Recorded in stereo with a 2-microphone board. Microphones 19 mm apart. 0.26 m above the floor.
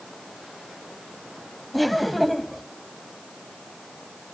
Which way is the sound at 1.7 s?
5° left (ahead or behind).